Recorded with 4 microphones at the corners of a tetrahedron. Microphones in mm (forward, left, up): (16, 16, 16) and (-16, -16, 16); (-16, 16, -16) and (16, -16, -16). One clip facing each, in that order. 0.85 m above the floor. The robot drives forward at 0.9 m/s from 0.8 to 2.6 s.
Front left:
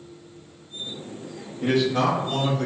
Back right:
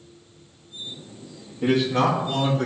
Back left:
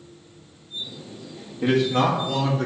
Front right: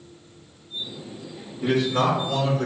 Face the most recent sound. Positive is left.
turn(degrees=165)